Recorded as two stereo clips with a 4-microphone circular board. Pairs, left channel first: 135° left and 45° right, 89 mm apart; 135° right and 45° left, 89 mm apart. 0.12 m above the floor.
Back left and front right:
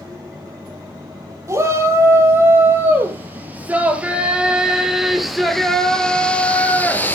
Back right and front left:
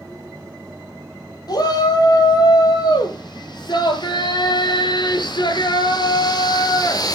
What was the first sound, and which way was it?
A shout, 100° right.